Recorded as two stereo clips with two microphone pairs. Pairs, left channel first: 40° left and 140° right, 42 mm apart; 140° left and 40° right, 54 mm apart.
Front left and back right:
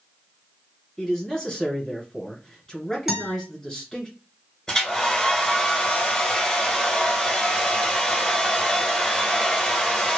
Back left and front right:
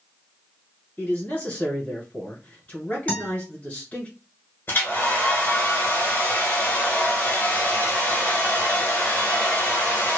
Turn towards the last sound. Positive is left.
turn(degrees=120)